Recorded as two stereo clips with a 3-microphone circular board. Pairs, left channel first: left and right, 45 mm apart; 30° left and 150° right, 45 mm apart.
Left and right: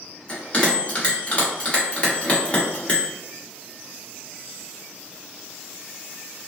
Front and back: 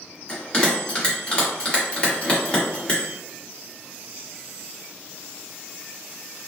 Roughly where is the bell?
Left.